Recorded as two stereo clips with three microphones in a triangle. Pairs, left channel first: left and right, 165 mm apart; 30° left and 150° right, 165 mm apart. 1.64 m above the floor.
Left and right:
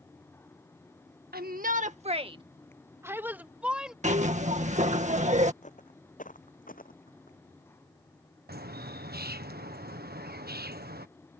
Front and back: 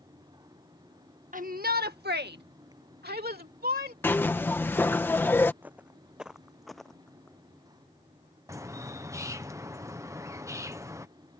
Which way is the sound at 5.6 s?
130° left.